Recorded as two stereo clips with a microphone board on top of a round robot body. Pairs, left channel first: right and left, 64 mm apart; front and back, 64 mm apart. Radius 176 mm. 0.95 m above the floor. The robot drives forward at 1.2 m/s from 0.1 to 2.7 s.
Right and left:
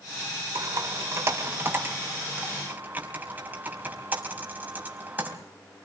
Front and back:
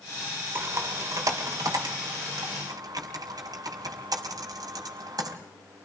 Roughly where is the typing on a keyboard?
Behind left.